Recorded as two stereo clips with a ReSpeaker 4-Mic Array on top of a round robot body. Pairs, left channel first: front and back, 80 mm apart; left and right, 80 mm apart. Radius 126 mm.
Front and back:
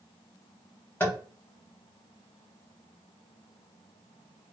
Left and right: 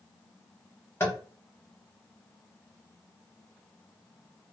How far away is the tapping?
About 1.4 m.